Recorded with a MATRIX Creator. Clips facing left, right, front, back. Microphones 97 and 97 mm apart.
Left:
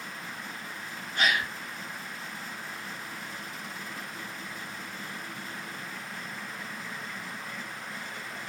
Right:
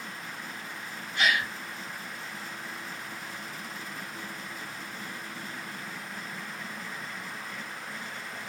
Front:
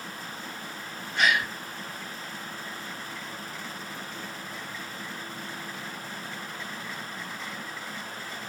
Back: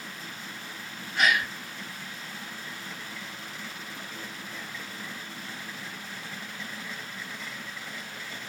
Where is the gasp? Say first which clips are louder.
Even, even; 95° left, 1.6 m.